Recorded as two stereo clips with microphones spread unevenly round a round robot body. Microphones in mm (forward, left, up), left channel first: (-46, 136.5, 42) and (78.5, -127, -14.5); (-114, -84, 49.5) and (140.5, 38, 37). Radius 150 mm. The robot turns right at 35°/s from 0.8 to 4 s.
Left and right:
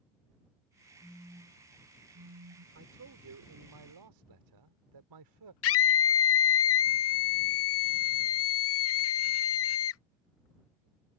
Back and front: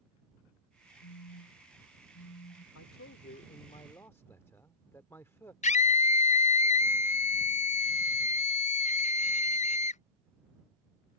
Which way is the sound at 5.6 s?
150° left.